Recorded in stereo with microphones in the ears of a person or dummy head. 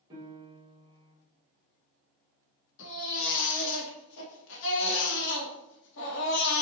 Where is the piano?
25° right (ahead or behind), 1.8 m.